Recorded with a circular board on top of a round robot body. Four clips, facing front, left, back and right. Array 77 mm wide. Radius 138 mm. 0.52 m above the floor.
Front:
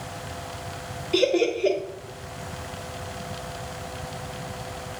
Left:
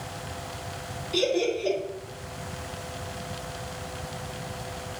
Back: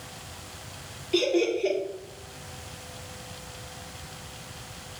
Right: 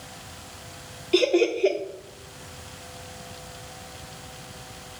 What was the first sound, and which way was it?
Laughter, 95° right.